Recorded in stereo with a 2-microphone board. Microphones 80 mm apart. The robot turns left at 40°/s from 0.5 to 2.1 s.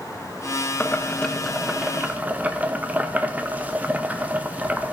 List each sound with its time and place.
0.8 s boiling: 30° left, 0.7 m; by 4.9 s 25° right, 0.7 m